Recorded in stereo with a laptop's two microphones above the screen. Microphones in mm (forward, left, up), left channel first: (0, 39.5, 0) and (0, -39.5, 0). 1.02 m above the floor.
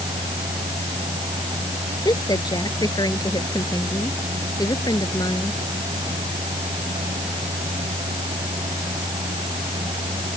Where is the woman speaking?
50° left (ahead or behind).